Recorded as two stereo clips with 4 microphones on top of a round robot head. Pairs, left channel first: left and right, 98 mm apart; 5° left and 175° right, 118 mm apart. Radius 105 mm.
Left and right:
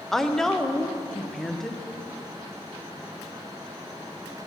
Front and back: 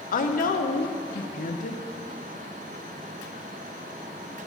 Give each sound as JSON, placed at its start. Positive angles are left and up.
{"t": 0.1, "sound": "a woman speaking", "azimuth_deg": 5, "distance_m": 0.7}